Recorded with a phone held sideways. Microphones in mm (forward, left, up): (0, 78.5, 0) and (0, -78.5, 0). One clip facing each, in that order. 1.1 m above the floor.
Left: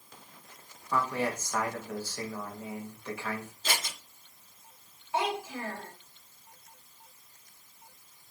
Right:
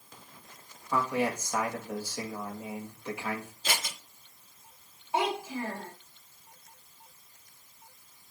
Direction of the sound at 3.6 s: 5° right (ahead or behind).